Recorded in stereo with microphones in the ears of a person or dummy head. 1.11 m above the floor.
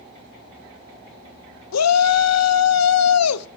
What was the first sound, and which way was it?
A shout, 80° left.